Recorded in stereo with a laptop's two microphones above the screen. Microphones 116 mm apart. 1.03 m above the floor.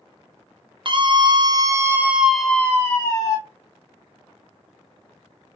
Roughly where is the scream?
Right.